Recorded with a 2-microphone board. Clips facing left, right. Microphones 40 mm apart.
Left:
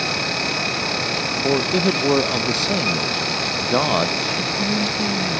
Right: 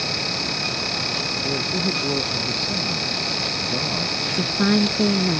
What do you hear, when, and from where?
1.4 s a man speaking: 80° left
4.3 s a woman speaking: 55° right (ahead or behind)